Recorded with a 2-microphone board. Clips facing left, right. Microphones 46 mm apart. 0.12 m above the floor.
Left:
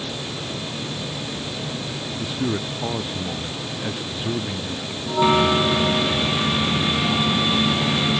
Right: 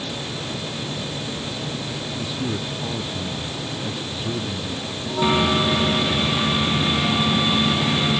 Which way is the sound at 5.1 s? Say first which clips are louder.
Left 2 dB; 25° left (ahead or behind).